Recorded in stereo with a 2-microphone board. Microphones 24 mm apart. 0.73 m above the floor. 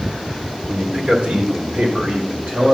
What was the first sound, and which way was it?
A man speaking, 45° right (ahead or behind).